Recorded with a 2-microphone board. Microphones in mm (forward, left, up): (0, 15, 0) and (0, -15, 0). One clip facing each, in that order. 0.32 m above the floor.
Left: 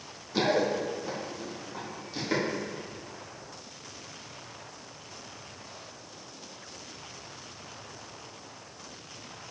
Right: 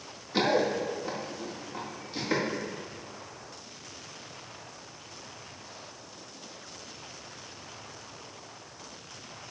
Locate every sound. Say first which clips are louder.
0.3 s running footsteps: even; 20° right (ahead or behind), 3 m; by 2.4 s 10° right (ahead or behind), 4.5 m